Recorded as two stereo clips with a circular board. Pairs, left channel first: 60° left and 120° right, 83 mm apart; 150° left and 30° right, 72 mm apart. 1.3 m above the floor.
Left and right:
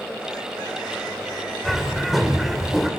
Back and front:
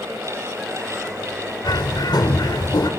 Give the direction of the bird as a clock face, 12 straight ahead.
7 o'clock.